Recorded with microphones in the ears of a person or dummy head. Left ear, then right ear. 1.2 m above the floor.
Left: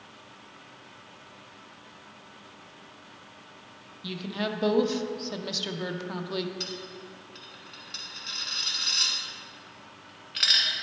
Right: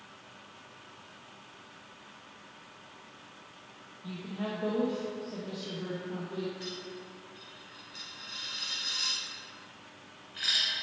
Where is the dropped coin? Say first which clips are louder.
Left 5 dB; 30° left (ahead or behind), 1.3 m.